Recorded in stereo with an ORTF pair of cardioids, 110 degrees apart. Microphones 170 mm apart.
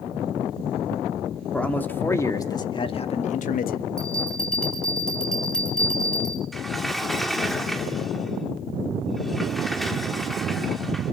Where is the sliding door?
Straight ahead, 1.7 m.